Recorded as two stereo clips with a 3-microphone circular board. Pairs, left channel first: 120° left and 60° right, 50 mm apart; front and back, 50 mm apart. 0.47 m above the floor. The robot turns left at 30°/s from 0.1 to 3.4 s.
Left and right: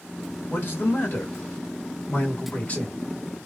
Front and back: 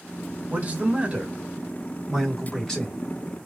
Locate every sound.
0.5 s a man speaking: 140° left, 1.8 m; by 3.0 s 65° left, 1.8 m